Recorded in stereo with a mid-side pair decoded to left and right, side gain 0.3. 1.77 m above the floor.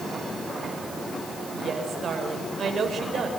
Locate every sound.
1.5 s a woman speaking: 70° right, 6.5 m